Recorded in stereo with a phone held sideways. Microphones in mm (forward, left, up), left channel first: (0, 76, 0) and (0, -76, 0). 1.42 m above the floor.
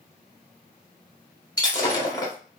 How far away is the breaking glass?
About 2.5 m.